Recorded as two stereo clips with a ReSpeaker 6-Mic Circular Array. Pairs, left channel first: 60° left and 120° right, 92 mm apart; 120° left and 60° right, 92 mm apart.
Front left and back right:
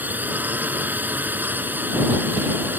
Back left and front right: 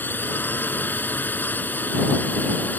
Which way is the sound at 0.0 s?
Straight behind.